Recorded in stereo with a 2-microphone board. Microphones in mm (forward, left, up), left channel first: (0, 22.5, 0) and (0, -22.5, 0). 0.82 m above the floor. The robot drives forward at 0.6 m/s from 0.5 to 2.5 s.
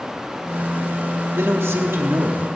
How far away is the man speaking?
About 1.7 m.